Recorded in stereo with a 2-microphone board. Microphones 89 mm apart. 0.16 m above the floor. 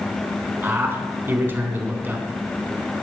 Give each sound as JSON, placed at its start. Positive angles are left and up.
{"t": 0.6, "sound": "a man speaking", "side_deg": -25, "distance_m": 1.1}